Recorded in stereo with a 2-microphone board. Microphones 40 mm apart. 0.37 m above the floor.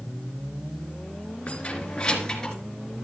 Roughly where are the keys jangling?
Left.